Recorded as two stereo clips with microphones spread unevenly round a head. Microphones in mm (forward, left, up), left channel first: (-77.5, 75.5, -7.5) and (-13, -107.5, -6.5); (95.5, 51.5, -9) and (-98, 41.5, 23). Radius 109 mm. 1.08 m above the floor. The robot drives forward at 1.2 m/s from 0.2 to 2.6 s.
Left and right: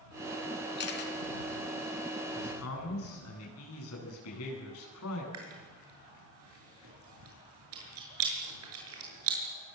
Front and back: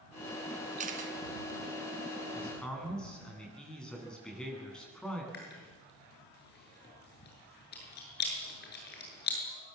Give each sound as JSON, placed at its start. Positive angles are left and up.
{"t": 0.8, "sound": "a camera shutter", "azimuth_deg": 135, "distance_m": 3.5}
{"t": 2.4, "sound": "a man speaking", "azimuth_deg": 90, "distance_m": 10.0}
{"t": 5.3, "sound": "chewing", "azimuth_deg": -45, "distance_m": 7.0}